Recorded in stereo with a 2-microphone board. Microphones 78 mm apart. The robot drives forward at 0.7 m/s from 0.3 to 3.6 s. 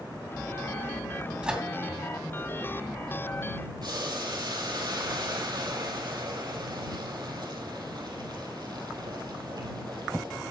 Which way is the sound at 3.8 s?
65° right (ahead or behind).